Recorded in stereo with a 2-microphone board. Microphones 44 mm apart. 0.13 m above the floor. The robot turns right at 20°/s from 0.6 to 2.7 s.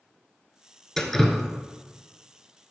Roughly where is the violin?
No violin in this recording.